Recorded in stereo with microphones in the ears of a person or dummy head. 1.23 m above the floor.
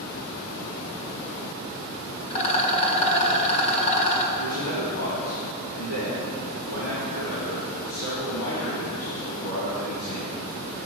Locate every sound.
2.3 s a rattle: 35° left (ahead or behind), 1.4 m
4.4 s a man speaking: 75° left (ahead or behind), 3 m